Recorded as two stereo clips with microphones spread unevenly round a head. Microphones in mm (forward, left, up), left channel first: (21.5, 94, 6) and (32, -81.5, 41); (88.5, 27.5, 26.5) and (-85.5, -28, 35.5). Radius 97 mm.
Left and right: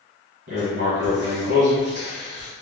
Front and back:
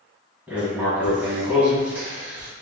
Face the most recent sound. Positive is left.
turn(degrees=-80)